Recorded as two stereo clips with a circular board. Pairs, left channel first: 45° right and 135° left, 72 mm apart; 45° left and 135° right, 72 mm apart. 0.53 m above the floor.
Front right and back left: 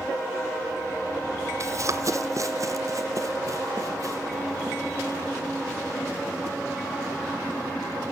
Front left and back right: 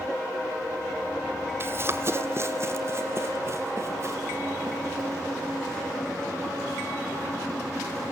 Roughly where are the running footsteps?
Behind.